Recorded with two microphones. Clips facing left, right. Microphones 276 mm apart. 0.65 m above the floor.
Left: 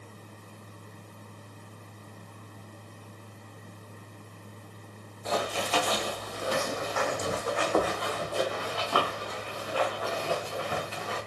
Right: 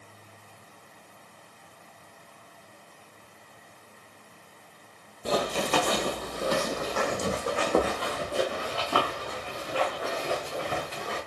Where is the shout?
I don't hear a shout.